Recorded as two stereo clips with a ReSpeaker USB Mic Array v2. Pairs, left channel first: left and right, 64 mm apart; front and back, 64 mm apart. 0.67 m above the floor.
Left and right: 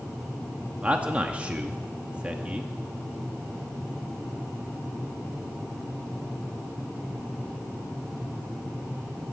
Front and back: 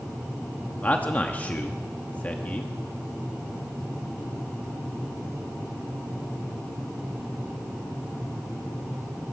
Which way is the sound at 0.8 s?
40° right.